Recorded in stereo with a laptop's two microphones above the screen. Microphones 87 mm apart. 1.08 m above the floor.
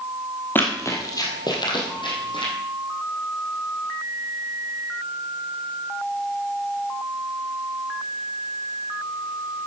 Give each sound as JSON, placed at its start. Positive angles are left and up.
{"t": 0.6, "sound": "running footsteps", "side_deg": 25, "distance_m": 1.9}